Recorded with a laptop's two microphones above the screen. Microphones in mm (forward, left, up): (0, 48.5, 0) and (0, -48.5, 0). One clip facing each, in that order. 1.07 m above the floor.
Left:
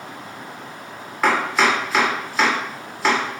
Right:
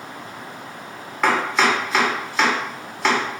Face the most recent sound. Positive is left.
turn(degrees=5)  # may be behind; listen again after turning